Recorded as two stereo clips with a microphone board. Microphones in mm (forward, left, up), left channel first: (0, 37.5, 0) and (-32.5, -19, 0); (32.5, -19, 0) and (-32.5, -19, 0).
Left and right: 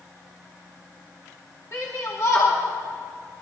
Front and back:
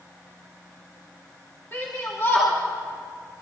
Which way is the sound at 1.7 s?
45° left.